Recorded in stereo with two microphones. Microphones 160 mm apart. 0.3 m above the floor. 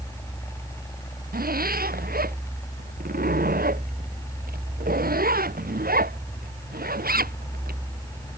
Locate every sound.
1.3 s a zipper: 80° right